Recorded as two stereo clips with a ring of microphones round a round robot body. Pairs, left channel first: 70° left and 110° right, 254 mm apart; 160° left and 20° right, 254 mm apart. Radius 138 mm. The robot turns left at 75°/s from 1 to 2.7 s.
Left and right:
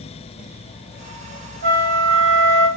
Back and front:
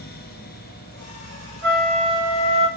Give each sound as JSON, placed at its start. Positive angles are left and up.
{"t": 1.6, "sound": "a flute", "azimuth_deg": -60, "distance_m": 3.5}